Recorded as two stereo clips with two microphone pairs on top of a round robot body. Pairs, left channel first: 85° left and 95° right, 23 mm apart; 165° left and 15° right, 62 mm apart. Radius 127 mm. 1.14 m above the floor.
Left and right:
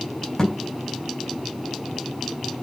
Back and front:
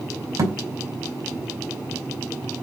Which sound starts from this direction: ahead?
A thud, at 0.4 s.